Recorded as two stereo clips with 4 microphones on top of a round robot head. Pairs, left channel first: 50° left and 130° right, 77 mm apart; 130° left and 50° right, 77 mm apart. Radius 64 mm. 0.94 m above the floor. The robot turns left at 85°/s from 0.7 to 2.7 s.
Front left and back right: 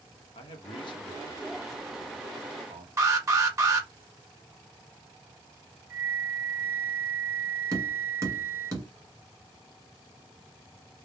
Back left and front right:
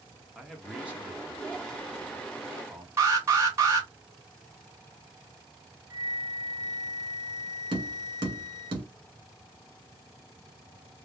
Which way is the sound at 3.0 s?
95° right.